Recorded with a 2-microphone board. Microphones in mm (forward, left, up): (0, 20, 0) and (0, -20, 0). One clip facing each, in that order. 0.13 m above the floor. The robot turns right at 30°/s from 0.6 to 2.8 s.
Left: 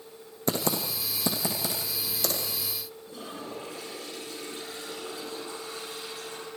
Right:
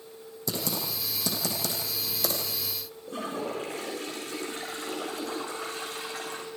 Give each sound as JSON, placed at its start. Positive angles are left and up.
{"t": 0.5, "sound": "typing on a keyboard", "side_deg": 45, "distance_m": 5.0}
{"t": 3.1, "sound": "a toilet flushing", "side_deg": -60, "distance_m": 5.0}